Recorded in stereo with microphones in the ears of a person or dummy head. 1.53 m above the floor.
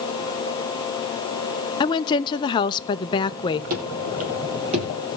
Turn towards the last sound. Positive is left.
turn(degrees=-25)  # may be behind; listen again after turning